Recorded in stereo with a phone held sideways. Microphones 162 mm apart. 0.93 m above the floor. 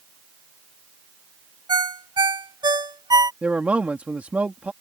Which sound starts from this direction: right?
A ringtone, at 1.7 s.